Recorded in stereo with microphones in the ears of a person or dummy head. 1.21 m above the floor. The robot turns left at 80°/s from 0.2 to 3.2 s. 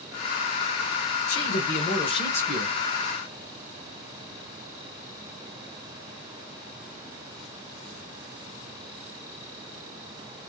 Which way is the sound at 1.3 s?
100° left.